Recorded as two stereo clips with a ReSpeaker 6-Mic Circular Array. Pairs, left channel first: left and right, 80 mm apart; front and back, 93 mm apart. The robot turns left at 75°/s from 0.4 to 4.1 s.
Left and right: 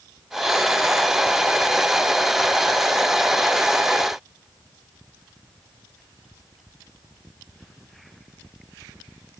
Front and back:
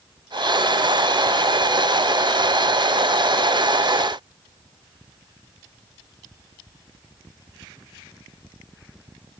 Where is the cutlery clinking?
No cutlery clinking in this recording.